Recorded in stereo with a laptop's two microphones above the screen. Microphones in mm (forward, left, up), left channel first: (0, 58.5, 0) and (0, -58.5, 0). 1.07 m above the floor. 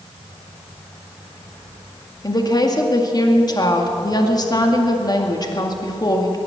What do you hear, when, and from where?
2.2 s a woman speaking: 35° left (ahead or behind), 2 m